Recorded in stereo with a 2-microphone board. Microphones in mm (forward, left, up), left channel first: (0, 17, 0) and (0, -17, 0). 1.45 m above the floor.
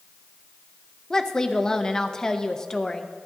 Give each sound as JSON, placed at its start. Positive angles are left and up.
{"t": 1.1, "sound": "a woman speaking", "side_deg": 20, "distance_m": 0.6}